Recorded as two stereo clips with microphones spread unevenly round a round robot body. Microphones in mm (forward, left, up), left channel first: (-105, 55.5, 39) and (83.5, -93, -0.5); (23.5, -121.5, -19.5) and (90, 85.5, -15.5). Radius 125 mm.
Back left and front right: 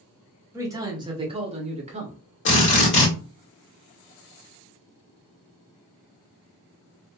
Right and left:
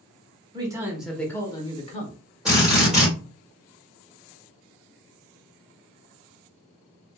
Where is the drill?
160° left, 1.5 m.